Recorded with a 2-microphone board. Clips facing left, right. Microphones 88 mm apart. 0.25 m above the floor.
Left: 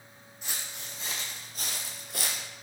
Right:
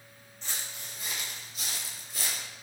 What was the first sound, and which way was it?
Footsteps, 15° left (ahead or behind).